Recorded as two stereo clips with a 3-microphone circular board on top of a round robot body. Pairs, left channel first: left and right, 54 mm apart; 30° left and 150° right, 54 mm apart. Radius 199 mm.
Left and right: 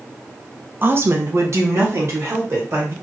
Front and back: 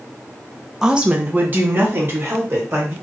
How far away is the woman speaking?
About 0.6 m.